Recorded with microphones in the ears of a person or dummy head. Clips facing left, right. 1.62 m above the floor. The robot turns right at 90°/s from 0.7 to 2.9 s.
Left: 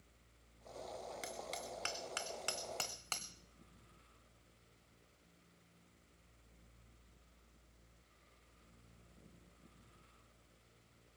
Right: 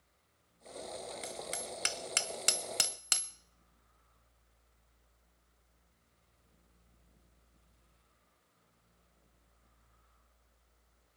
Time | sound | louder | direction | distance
1.2 | hammering | right 4 dB | 5° left (ahead or behind) | 0.6 m